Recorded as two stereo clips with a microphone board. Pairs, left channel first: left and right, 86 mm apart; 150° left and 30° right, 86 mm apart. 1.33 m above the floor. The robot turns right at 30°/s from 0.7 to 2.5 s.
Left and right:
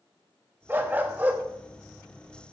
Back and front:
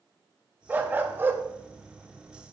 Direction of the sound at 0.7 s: 65° right.